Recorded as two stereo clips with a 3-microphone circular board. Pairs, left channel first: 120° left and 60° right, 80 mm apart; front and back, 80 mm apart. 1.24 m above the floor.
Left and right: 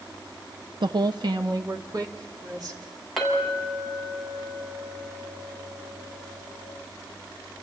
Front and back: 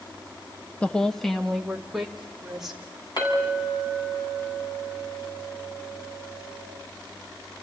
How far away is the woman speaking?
About 0.8 m.